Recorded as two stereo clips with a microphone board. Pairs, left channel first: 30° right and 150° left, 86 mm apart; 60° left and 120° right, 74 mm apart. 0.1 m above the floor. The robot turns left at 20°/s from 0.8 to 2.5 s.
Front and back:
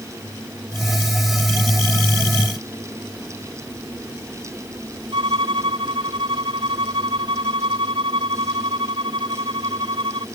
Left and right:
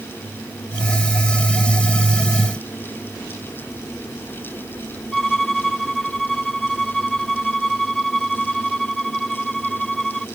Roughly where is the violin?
Behind left.